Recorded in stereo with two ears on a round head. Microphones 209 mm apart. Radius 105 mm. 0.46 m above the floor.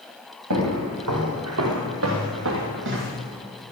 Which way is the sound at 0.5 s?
80° right.